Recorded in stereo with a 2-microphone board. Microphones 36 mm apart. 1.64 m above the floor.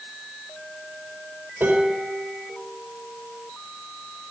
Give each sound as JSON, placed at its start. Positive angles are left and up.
{"t": 1.6, "sound": "dishes clattering", "side_deg": -80, "distance_m": 4.5}